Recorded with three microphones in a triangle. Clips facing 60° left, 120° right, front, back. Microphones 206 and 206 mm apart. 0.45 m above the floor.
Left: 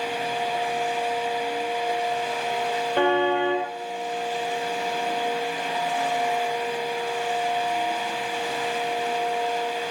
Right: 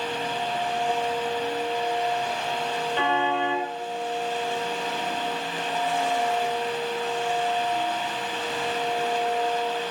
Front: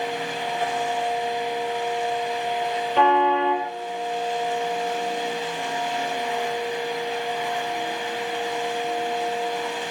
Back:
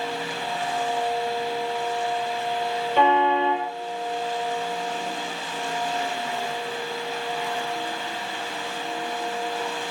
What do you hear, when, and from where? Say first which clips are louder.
3.0 s a car horn: left 6 dB, front 1 dB; 90° left, 5.5 m